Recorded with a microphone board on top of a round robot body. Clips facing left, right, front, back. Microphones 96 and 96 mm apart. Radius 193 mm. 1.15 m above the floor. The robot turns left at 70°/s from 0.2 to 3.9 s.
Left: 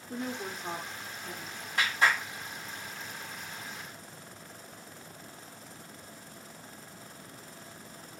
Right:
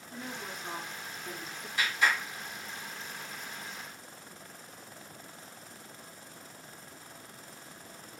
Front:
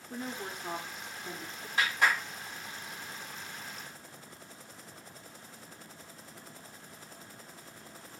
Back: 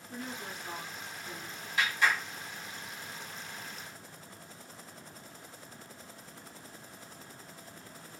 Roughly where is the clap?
Ahead left.